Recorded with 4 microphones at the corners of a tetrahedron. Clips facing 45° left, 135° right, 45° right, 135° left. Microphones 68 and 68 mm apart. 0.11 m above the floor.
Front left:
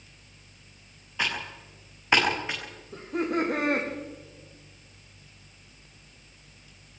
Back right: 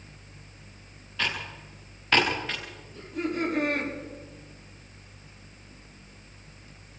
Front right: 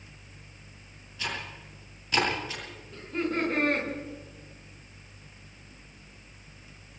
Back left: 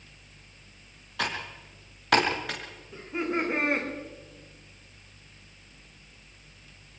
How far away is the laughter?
About 9 m.